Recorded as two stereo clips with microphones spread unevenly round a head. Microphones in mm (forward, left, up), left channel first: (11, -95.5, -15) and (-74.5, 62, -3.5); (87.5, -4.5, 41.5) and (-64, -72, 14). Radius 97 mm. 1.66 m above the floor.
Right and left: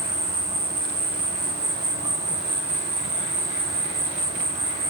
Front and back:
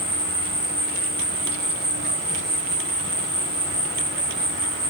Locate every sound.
0.0 s an insect: 160° left, 3 m